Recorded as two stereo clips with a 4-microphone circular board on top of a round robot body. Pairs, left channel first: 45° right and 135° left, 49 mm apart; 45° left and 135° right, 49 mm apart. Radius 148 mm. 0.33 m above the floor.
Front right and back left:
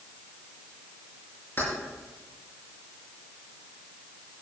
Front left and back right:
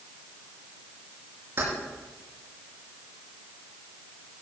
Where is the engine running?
No engine running in this recording.